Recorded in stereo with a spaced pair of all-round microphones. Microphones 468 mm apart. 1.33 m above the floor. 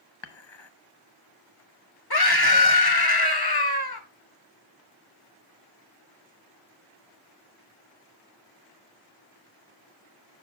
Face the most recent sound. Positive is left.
turn(degrees=50)  # may be behind; listen again after turning